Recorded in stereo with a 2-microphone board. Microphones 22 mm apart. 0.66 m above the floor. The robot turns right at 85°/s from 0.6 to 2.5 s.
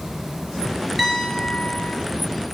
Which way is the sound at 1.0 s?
10° right.